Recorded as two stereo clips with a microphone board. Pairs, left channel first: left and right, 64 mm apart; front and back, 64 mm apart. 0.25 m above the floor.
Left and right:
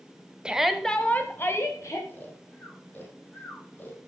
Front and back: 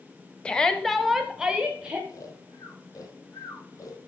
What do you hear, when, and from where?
0.5 s a shout: 50° right, 0.9 m; by 2.0 s 110° left, 1.5 m
2.1 s snoring: 30° left, 2.5 m